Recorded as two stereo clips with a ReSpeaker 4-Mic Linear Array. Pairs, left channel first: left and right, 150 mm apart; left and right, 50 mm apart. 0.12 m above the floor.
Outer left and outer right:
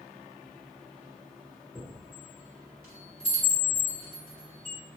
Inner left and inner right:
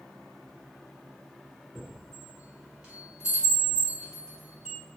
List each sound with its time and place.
1.8 s a chime: 15° right (ahead or behind), 1.7 m